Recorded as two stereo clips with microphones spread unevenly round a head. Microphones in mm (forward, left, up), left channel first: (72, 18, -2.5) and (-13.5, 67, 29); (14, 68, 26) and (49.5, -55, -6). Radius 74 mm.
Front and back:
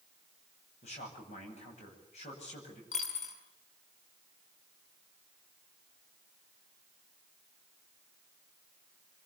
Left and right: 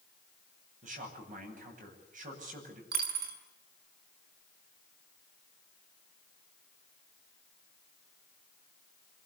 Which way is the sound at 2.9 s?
70° right.